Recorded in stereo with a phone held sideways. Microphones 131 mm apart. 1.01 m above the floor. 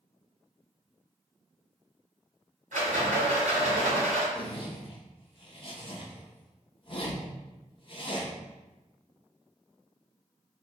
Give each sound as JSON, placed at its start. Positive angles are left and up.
{"t": 2.7, "sound": "a rattle", "side_deg": -75, "distance_m": 1.9}
{"t": 4.3, "sound": "a zipper", "side_deg": 40, "distance_m": 0.7}